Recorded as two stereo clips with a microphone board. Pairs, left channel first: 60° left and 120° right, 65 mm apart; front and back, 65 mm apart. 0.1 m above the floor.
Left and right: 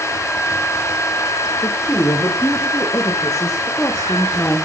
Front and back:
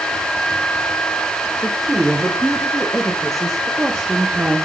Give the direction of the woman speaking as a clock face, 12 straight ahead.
9 o'clock.